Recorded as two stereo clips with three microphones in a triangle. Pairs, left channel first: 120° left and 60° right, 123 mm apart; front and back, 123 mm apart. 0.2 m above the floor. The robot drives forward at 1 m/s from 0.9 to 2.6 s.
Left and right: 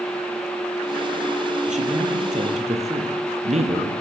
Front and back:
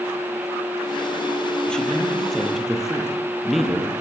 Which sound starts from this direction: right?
A man speaking, at 1.7 s.